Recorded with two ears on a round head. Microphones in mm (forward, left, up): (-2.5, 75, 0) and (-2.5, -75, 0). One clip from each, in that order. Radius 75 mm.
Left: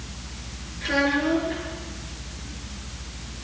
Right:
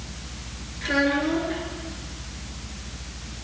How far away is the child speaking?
About 9.5 m.